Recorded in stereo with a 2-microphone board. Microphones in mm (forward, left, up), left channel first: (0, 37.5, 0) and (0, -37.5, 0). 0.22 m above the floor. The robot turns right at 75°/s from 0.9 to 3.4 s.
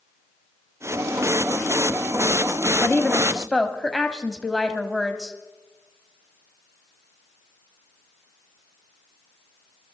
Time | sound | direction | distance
2.8 | a woman speaking | 20° left (ahead or behind) | 1.0 m